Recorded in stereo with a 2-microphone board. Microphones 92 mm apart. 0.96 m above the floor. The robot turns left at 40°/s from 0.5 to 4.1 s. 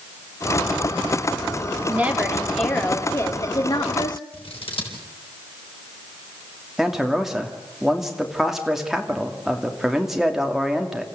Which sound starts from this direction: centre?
A man speaking, at 6.8 s.